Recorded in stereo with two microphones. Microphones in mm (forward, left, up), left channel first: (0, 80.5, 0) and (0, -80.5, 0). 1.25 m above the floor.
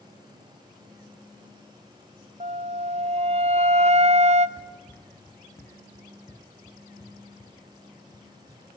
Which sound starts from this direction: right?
A flute, at 2.4 s.